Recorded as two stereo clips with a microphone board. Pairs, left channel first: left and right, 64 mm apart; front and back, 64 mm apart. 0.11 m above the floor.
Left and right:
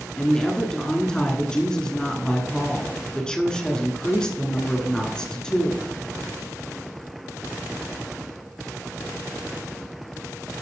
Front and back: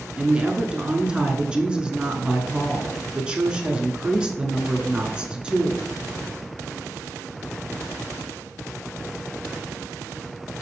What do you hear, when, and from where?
0.2 s a woman speaking: 140° left, 1.3 m